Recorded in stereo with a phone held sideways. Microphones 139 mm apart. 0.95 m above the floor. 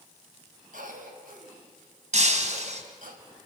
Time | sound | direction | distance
0.7 | a cough | 80° right | 5.5 m
2.1 | breaking glass | 60° right (ahead or behind) | 2.5 m